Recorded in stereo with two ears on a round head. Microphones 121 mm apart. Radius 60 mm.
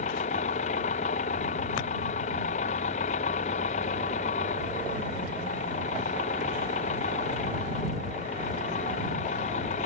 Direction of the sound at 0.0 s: 55° left (ahead or behind).